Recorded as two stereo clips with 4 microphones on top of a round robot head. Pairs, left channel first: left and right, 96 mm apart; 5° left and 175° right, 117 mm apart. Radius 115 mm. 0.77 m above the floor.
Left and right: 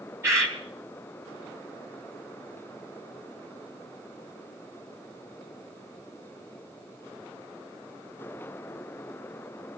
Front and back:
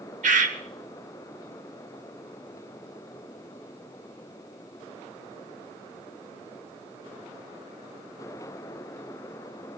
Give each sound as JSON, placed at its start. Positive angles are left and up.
{"t": 0.2, "sound": "a bird", "azimuth_deg": -160, "distance_m": 1.6}